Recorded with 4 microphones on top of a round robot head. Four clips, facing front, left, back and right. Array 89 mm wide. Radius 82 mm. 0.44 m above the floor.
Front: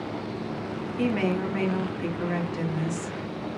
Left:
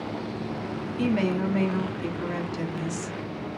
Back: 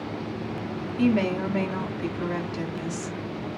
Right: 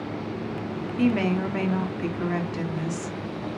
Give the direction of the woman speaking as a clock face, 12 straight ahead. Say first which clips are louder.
Right 2 dB, back 3 dB; 2 o'clock.